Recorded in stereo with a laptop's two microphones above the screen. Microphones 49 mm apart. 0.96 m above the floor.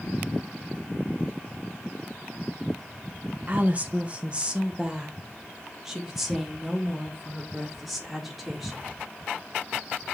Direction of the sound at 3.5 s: 35° right (ahead or behind).